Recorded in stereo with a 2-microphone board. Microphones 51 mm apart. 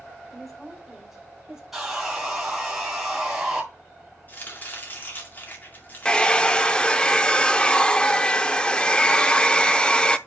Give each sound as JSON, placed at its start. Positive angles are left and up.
{"t": 0.3, "sound": "a woman speaking", "side_deg": 0, "distance_m": 3.0}
{"t": 1.7, "sound": "sawing", "side_deg": -5, "distance_m": 2.5}
{"t": 4.3, "sound": "chopping", "side_deg": 40, "distance_m": 2.0}
{"t": 6.0, "sound": "a hair dryer", "side_deg": 15, "distance_m": 0.6}